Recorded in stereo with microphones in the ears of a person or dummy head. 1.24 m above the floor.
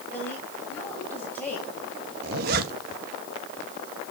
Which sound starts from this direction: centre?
A woman speaking, at 0.1 s.